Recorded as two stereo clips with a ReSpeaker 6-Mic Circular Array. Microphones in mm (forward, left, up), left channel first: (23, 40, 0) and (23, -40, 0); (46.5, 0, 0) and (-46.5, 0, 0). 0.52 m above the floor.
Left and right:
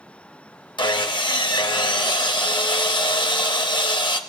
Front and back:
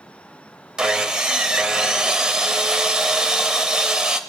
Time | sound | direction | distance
0.8 | sawing | 100° left | 0.6 m